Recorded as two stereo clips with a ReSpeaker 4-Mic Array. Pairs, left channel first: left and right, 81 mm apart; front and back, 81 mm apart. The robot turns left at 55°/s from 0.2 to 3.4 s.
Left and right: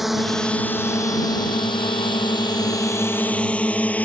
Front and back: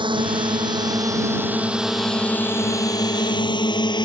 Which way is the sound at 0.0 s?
Straight behind.